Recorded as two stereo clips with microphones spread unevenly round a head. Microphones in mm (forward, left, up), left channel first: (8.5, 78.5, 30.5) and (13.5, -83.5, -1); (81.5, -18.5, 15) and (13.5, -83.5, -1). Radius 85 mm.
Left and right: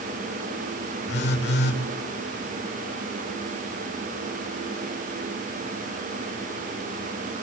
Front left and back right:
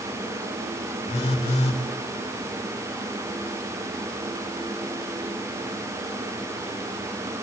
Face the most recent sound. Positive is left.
turn(degrees=75)